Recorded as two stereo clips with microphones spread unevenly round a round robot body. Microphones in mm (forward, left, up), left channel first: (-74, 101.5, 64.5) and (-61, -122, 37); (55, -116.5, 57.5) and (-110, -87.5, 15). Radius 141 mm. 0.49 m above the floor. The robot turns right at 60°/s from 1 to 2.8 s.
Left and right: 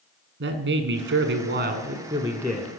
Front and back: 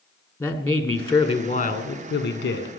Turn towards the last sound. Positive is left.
turn(degrees=10)